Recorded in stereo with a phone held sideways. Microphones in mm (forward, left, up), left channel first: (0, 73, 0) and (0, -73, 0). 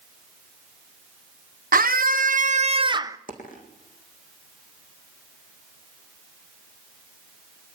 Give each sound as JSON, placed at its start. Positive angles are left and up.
{"t": 1.7, "sound": "a scream", "side_deg": -85, "distance_m": 1.1}
{"t": 3.3, "sound": "a dropped coin", "side_deg": 65, "distance_m": 3.5}